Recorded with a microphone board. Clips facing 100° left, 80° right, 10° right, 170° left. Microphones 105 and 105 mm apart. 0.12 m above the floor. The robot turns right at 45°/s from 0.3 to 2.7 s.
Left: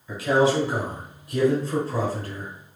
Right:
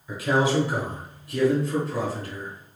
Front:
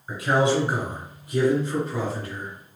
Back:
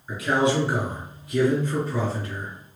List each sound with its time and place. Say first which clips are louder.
0.1 s a man speaking: left 2 dB, front 1 dB; straight ahead, 1.6 m; by 2.5 s 100° left, 1.6 m